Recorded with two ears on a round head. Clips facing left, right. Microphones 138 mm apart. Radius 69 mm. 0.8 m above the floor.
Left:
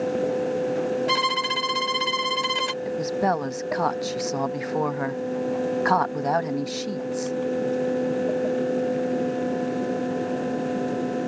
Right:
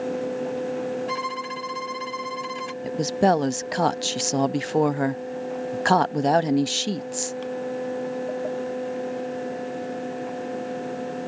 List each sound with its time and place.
1.1 s a violin: 70° left (ahead or behind)
2.8 s a woman speaking: 35° right (ahead or behind)